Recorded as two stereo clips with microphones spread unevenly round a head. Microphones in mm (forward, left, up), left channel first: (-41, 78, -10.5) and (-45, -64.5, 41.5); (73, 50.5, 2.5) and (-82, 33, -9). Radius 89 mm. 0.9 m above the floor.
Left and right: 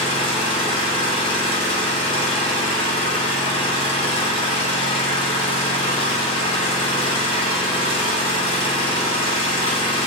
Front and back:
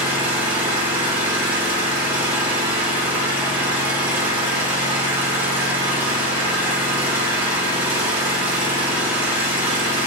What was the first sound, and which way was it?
An engine running, 115° left.